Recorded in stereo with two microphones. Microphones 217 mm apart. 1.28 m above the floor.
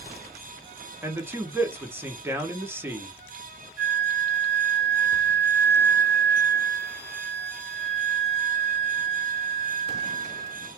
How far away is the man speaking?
About 0.7 m.